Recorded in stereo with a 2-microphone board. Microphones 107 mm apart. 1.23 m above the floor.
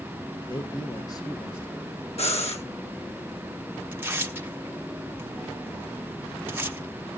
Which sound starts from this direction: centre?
Tearing paper, at 3.9 s.